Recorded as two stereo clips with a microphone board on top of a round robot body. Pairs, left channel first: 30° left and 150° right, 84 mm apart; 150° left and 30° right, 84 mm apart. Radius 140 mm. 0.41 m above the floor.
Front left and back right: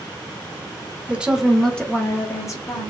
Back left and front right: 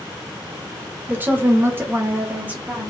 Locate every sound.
1.1 s a woman speaking: 85° right, 0.9 m; by 2.9 s 40° left, 1.1 m